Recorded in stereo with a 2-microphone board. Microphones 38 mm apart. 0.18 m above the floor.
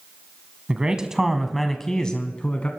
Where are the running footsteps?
I don't hear running footsteps.